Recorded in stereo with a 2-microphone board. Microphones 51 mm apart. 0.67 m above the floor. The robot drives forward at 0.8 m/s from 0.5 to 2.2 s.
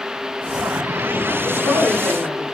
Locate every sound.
1.4 s a woman speaking: 65° left (ahead or behind), 8 m